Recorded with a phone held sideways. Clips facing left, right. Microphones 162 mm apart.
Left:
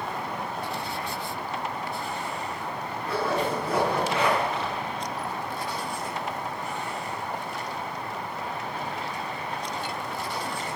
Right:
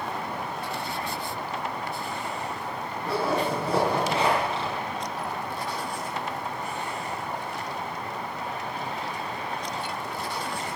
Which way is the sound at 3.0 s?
30° right (ahead or behind).